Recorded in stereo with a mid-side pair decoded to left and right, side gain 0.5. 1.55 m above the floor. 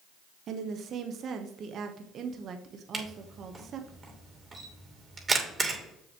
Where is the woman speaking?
55° right, 1.1 m.